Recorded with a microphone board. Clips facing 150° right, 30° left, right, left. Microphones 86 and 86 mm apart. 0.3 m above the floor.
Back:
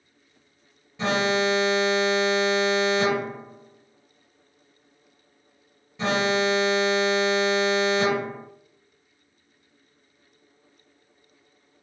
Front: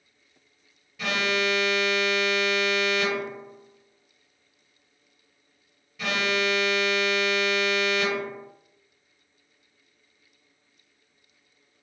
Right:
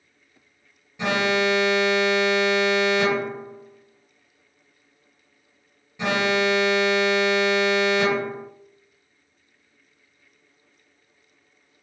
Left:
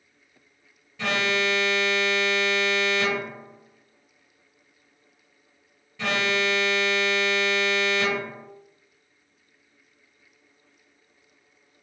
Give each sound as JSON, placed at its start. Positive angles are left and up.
{"t": 1.0, "sound": "an alarm", "azimuth_deg": -140, "distance_m": 0.8}